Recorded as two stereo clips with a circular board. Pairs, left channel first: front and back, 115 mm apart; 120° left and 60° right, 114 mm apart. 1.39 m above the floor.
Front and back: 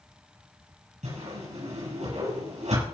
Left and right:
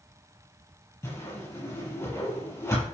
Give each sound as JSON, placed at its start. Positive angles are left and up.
{"t": 1.0, "sound": "a whoosh", "azimuth_deg": 180, "distance_m": 8.5}